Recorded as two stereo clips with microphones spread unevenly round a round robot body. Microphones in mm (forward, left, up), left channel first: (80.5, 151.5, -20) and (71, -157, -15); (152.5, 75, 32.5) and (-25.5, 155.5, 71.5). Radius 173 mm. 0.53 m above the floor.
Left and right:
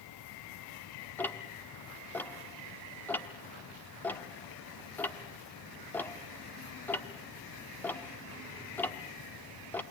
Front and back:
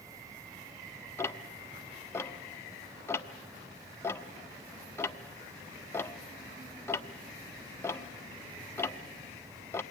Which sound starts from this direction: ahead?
Ticking, at 1.2 s.